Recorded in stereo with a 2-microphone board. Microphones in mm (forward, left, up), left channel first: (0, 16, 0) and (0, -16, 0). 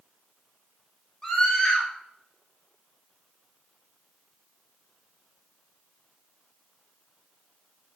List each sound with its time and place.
1.2 s a scream: 15° left (ahead or behind), 4 m